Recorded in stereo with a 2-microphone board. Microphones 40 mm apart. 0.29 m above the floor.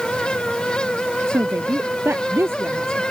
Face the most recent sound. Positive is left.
turn(degrees=-80)